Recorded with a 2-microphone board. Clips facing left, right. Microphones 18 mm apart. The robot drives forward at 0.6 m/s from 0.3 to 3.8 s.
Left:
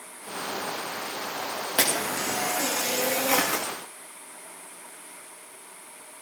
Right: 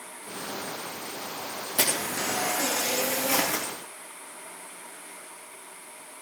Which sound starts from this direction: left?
A camera shutter, at 1.8 s.